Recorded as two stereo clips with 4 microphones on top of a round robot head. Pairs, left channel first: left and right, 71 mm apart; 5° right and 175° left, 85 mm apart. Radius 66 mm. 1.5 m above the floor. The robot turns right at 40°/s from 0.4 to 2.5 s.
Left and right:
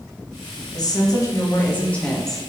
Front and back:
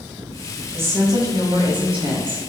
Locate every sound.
0.7 s a woman speaking: 115° left, 1.0 m; by 2.4 s straight behind, 1.0 m